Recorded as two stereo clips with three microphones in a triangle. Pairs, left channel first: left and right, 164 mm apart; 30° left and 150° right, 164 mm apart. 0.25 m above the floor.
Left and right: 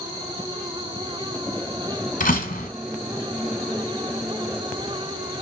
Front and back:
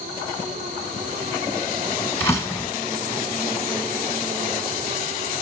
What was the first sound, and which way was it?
A door slam, 100° left.